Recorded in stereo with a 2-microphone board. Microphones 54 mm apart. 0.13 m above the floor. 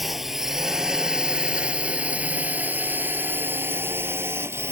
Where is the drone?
5° right (ahead or behind); by 4.7 s 55° right (ahead or behind).